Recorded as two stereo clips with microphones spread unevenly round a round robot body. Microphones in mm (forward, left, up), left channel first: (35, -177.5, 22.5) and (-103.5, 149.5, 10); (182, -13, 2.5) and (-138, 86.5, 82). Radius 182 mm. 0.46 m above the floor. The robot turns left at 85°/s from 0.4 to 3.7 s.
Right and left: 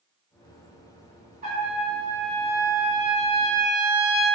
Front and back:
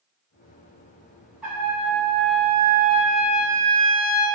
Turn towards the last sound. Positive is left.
turn(degrees=-135)